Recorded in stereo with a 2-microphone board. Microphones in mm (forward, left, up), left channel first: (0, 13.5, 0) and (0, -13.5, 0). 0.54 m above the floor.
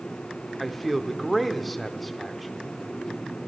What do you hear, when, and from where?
0.6 s a man speaking: 5° left (ahead or behind), 1.0 m